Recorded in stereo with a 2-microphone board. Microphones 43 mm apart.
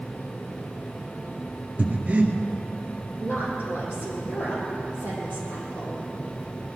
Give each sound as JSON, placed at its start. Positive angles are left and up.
{"t": 1.8, "sound": "breathing", "side_deg": -35, "distance_m": 1.6}
{"t": 3.2, "sound": "a woman speaking", "side_deg": 75, "distance_m": 6.5}